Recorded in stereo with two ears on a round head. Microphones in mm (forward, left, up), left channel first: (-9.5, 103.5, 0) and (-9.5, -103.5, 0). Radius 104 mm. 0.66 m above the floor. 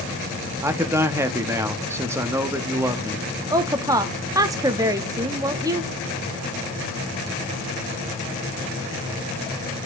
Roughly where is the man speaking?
Centre.